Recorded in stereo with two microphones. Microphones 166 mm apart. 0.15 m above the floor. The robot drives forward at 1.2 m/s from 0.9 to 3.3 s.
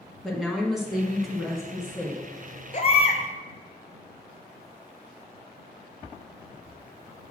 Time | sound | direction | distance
0.2 | a woman speaking | centre (ahead or behind) | 1.5 m
2.7 | a baby crying | 45° left (ahead or behind) | 1.0 m